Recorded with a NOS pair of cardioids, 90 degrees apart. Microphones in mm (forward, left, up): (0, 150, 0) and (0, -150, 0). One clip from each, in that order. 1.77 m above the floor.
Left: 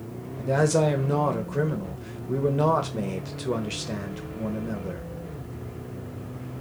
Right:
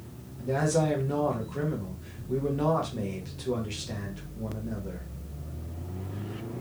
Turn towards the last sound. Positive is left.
turn(degrees=30)